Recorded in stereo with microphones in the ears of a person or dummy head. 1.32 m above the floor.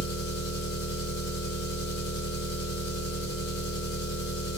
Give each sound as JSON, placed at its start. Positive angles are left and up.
{"t": 0.0, "sound": "an engine running", "side_deg": 75, "distance_m": 3.0}